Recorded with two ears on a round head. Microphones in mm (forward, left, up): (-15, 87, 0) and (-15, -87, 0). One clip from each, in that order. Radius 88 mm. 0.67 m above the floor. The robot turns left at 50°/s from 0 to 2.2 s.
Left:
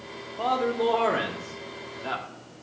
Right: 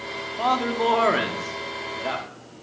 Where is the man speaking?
95° right, 1.3 m; by 2.2 s 175° left, 1.3 m.